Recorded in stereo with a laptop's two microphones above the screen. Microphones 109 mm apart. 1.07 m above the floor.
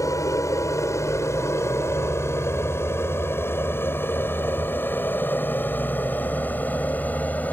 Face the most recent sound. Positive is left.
turn(degrees=15)  # may be behind; listen again after turning